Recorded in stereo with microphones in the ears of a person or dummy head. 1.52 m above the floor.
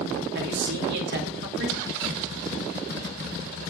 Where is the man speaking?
65° right (ahead or behind), 2.5 m.